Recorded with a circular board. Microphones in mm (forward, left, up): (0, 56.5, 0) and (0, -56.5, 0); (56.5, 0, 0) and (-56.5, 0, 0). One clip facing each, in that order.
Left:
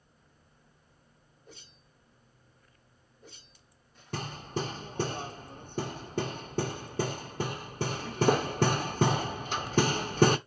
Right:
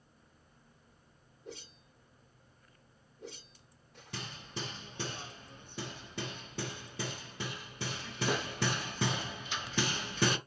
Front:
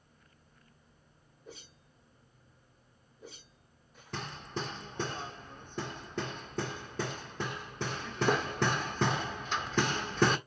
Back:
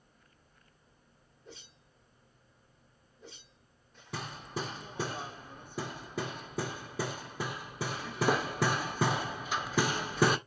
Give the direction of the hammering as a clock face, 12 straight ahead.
9 o'clock.